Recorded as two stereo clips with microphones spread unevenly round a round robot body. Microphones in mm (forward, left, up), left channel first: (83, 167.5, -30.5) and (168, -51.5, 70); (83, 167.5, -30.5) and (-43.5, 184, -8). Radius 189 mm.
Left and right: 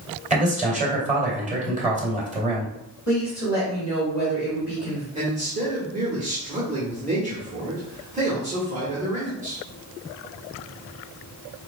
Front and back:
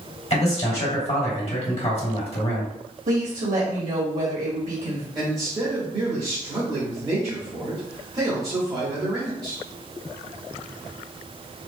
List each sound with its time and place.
0.3 s a man speaking: 5° left, 2.5 m
3.1 s a woman speaking: 170° right, 1.5 m
5.2 s a man speaking: 145° right, 1.2 m